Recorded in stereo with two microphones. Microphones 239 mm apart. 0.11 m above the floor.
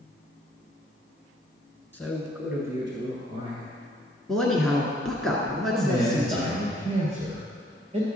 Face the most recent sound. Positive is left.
turn(degrees=-30)  # may be behind; listen again after turning